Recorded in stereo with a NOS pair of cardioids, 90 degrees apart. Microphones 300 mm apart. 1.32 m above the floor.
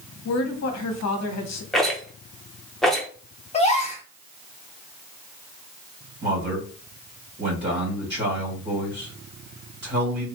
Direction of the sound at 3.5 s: 20° left.